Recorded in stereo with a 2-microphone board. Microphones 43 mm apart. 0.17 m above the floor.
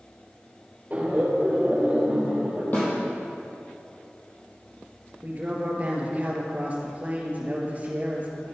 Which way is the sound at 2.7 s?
40° left (ahead or behind).